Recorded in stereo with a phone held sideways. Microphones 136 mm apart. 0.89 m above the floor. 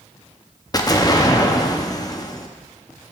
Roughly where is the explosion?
Left.